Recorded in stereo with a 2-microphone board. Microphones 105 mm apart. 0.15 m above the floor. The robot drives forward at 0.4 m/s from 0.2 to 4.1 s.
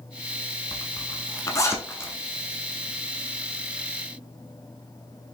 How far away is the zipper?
About 0.5 m.